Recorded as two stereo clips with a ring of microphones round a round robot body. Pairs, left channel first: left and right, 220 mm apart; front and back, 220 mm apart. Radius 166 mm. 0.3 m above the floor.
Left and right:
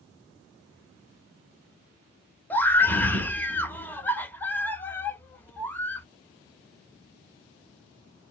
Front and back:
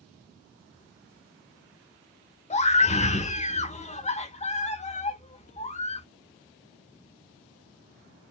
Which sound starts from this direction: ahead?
A scream, at 2.5 s.